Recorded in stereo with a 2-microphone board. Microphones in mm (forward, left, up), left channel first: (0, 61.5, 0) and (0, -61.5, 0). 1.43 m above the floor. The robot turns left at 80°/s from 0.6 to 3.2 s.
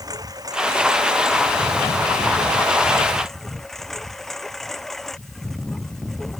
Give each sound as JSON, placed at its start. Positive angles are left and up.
{"t": 0.0, "sound": "a lawn mower", "azimuth_deg": -150}